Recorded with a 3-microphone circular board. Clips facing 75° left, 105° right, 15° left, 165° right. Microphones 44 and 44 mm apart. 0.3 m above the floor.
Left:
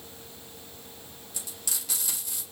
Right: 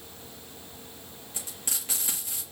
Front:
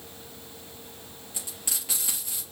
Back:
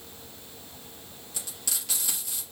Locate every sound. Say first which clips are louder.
1.3 s frying: right 1 dB, even; 50° right, 3 m